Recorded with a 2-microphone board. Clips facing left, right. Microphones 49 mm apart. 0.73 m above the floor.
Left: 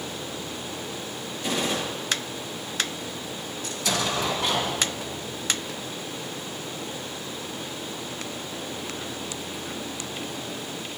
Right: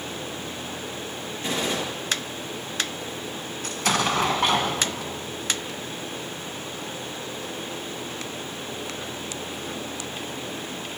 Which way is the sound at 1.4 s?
35° right (ahead or behind).